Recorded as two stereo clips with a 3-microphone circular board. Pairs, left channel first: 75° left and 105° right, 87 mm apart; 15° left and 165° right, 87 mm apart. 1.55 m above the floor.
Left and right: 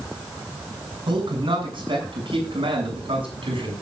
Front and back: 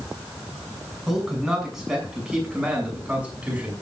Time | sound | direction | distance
1.1 | a man speaking | 75° right | 7.5 m